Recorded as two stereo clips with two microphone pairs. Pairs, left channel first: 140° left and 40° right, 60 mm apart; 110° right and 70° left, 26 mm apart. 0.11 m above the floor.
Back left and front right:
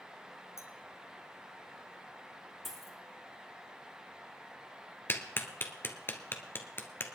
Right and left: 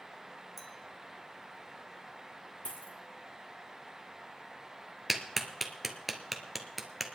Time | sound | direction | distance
0.6 | a clink | 165° left | 2.0 m
2.6 | a dropped coin | 125° right | 3 m
5.1 | a clap | 160° left | 1.1 m